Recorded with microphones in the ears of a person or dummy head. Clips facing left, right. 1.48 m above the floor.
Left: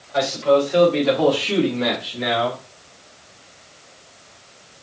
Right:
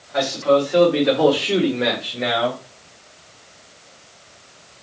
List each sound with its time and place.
0.1 s a man speaking: 5° right (ahead or behind), 2.5 m; by 2.6 s 40° right (ahead or behind), 1.6 m